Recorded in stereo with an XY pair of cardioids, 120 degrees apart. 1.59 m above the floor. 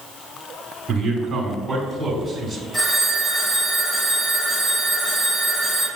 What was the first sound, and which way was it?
A man speaking, 30° right.